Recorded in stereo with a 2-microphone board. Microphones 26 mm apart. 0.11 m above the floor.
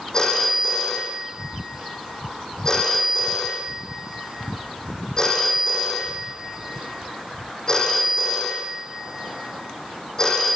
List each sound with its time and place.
0.1 s a phone ringing: 25° left (ahead or behind), 4.5 m